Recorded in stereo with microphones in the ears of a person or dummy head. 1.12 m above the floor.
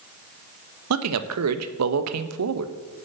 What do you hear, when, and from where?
0.9 s a man speaking: 80° right, 1.0 m